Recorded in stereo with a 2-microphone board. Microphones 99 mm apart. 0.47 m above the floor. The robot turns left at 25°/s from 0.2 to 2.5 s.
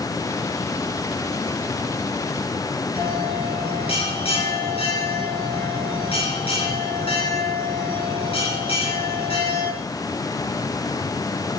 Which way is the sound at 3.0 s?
75° left (ahead or behind).